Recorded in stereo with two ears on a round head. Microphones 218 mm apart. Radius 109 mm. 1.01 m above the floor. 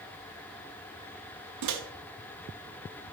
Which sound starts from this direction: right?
A microwave, at 1.6 s.